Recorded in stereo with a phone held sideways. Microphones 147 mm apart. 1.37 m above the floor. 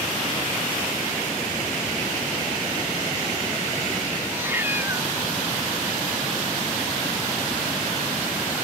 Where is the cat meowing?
15° right (ahead or behind).